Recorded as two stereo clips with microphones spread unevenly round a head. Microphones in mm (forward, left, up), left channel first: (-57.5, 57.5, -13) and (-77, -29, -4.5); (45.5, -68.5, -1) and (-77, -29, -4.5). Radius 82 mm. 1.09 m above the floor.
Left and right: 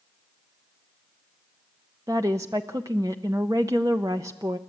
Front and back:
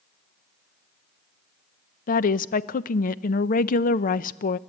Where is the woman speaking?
30° right, 0.6 m.